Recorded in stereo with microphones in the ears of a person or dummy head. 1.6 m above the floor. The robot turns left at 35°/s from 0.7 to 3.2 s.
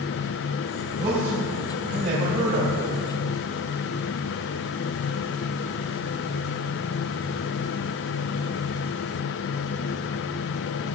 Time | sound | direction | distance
1.0 | a man speaking | 35° right | 4.5 m